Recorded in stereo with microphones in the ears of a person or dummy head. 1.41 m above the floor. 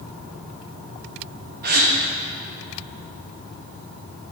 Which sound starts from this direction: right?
A gasp, at 1.6 s.